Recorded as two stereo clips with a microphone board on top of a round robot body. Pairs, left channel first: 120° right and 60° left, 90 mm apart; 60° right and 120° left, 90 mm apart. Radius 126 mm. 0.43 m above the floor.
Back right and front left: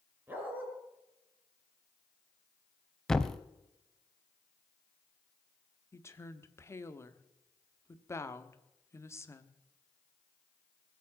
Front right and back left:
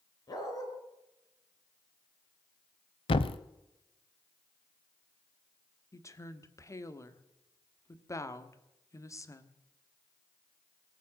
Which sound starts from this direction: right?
A woman speaking, at 5.9 s.